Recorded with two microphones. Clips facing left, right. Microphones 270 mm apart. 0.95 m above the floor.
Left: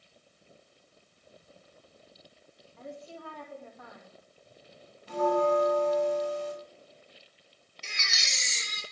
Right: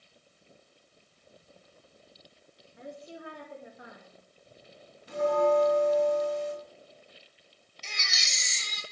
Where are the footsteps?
No footsteps in this recording.